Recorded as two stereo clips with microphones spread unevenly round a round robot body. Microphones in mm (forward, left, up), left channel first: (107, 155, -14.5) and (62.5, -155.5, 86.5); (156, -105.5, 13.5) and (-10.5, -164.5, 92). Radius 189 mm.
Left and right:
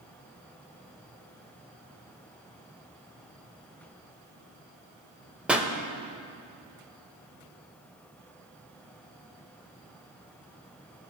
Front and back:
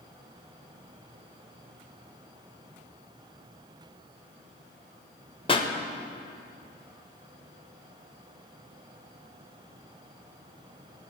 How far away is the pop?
About 0.8 m.